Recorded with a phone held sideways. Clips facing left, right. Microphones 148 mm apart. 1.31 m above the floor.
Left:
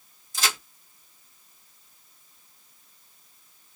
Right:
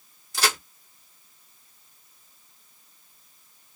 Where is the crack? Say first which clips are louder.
Right 4 dB; 70° right (ahead or behind), 1.7 m.